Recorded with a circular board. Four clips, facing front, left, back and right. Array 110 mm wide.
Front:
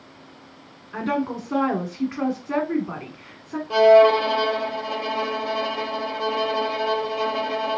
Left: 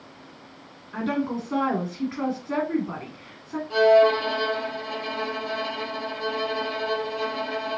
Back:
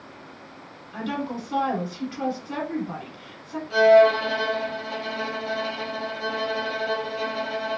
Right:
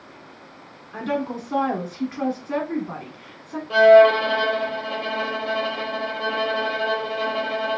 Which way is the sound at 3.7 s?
40° right.